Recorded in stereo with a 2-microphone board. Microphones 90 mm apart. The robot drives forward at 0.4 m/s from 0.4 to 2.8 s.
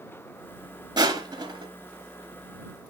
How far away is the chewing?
No chewing in this recording.